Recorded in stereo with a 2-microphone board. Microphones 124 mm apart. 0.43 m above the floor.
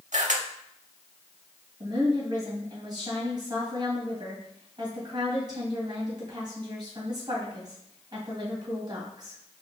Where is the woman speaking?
35° right (ahead or behind), 2 m.